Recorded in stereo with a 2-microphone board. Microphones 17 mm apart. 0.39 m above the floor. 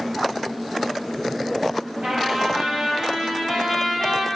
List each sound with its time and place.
2.0 s a trumpet: 60° right (ahead or behind), 4.5 m